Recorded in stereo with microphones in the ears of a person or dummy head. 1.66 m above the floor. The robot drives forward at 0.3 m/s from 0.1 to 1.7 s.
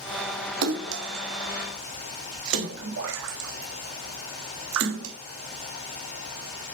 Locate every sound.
0.6 s a splash: 70° right (ahead or behind), 0.8 m; by 5.2 s 75° right (ahead or behind), 0.8 m